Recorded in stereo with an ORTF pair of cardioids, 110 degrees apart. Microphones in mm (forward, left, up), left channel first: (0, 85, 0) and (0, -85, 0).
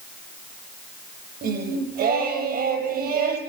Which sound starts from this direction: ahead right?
Singing, at 1.4 s.